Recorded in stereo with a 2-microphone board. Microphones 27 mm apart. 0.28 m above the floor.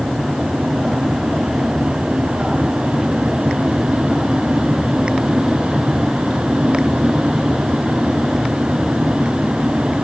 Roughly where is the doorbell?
I don't hear a doorbell.